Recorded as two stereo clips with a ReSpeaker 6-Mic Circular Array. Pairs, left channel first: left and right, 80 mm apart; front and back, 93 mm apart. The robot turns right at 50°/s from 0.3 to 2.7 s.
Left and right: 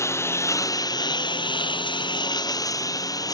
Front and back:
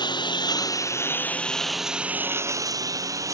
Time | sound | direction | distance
0.0 | a lawn mower | 35° left | ?